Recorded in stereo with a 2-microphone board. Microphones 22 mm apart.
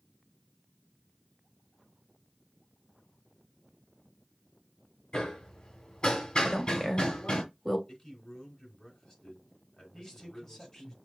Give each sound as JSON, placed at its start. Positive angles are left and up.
{"t": 5.1, "sound": "hammering", "side_deg": 35, "distance_m": 1.8}
{"t": 6.4, "sound": "a woman speaking", "side_deg": 20, "distance_m": 1.3}
{"t": 7.9, "sound": "a man speaking", "side_deg": 25, "distance_m": 3.5}
{"t": 9.9, "sound": "a man speaking", "side_deg": 15, "distance_m": 2.5}